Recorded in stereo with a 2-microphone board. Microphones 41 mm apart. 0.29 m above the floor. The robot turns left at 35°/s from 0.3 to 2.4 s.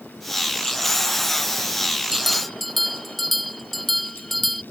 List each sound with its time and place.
2.1 s a bell: 10° right (ahead or behind); by 4.6 s centre (ahead or behind)